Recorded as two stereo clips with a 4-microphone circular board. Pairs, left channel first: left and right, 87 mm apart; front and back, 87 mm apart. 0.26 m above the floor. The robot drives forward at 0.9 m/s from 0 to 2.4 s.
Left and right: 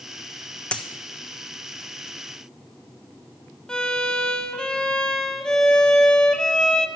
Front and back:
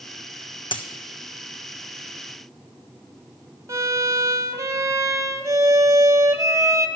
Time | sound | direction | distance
0.7 | a dropped coin | 15° left | 1.0 m
3.7 | a violin | 165° left | 0.9 m